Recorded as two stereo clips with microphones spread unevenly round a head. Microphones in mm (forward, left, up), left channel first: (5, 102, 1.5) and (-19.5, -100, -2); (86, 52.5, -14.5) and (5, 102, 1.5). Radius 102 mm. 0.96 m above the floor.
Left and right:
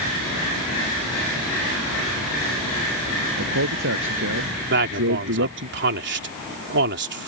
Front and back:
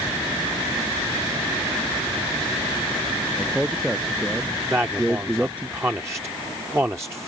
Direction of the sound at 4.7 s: 130° right.